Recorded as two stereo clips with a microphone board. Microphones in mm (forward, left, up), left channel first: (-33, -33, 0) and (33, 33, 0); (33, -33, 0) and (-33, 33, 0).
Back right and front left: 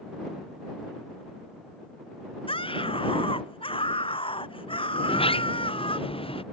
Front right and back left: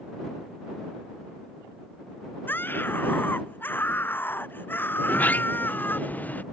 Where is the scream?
115° right.